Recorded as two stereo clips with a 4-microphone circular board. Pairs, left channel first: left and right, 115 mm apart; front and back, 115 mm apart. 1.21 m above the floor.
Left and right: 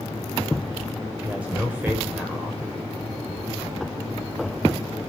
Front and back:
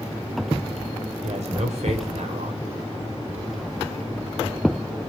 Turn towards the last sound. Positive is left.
turn(degrees=-165)